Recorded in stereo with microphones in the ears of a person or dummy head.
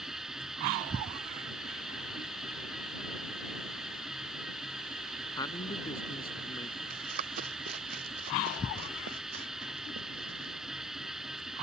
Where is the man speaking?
25° left (ahead or behind).